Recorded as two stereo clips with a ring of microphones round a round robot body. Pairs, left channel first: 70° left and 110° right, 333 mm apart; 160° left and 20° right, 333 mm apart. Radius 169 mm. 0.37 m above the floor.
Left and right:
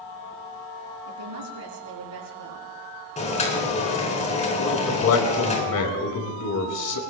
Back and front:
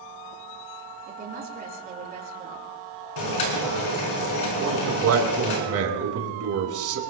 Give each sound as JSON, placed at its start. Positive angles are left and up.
{"t": 1.1, "sound": "a woman speaking", "azimuth_deg": -85, "distance_m": 4.0}
{"t": 3.2, "sound": "boiling", "azimuth_deg": 135, "distance_m": 4.5}
{"t": 4.6, "sound": "a man speaking", "azimuth_deg": 25, "distance_m": 4.0}